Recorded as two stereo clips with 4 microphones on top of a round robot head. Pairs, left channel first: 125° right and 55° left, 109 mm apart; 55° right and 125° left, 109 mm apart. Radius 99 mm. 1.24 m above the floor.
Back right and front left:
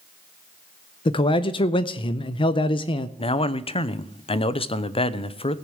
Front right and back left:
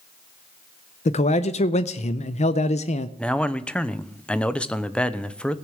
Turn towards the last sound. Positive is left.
turn(degrees=-135)